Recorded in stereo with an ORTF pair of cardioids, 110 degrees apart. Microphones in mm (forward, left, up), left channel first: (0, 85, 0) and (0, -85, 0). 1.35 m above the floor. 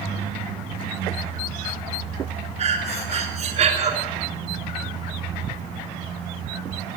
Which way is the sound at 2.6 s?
40° right.